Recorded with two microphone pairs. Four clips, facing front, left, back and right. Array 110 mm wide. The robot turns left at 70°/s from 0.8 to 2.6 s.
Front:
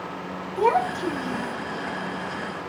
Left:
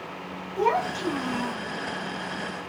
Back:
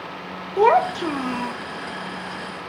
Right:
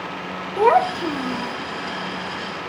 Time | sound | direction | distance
0.6 | a child speaking | 145° right | 0.8 m